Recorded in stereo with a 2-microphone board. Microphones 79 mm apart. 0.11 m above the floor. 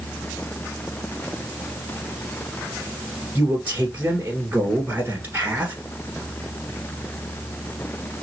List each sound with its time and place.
3.4 s a man speaking: 25° right (ahead or behind), 1.5 m